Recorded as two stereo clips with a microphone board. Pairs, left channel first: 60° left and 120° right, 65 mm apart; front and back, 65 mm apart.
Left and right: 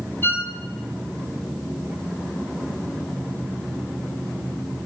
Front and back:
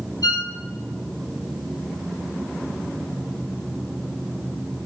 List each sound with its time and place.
0.2 s a violin: 5° left, 0.6 m